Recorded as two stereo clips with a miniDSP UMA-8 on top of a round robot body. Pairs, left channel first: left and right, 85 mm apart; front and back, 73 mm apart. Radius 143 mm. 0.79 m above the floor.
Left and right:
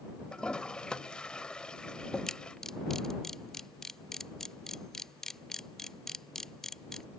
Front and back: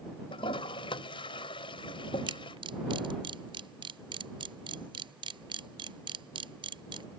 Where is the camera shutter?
175° left.